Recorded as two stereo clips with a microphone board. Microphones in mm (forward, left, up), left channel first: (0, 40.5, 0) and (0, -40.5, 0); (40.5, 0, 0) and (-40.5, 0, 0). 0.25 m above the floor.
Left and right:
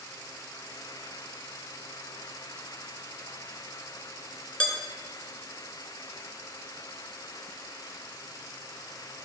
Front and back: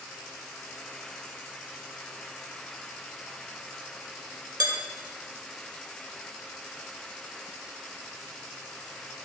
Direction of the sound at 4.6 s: 165° left.